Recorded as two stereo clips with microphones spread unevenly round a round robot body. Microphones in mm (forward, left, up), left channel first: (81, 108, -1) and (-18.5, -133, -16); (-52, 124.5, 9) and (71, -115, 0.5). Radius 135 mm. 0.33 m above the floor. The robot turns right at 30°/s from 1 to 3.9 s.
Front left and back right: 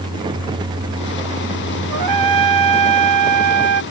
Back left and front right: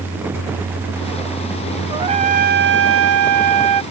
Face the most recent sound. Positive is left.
turn(degrees=-80)